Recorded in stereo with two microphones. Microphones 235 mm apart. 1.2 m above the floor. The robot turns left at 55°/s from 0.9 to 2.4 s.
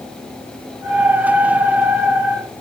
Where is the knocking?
No knocking in this recording.